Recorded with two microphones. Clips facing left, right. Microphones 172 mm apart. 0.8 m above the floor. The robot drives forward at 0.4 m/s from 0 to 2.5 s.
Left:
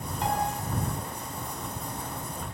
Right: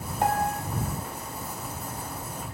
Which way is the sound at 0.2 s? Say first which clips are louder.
Right 3 dB; 60° right (ahead or behind).